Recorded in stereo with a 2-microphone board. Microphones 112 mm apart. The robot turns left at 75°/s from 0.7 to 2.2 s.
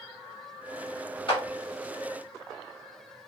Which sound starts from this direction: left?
A clap, at 1.3 s.